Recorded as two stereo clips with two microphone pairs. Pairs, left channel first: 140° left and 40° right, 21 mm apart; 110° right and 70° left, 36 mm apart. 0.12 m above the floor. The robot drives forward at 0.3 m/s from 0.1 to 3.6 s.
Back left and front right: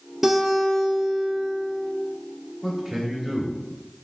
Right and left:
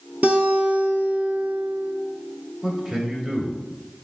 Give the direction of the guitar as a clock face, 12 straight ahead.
11 o'clock.